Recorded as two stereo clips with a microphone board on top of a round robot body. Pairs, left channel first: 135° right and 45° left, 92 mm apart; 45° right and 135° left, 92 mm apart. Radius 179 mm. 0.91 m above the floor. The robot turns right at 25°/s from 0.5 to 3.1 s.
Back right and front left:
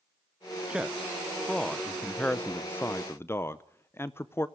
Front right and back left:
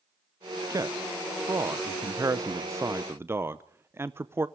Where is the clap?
No clap in this recording.